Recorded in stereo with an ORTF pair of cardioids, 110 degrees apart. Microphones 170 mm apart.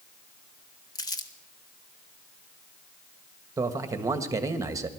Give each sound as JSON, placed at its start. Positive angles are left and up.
{"t": 0.9, "sound": "crumpling", "azimuth_deg": 25, "distance_m": 1.3}
{"t": 3.6, "sound": "a man speaking", "azimuth_deg": -20, "distance_m": 1.5}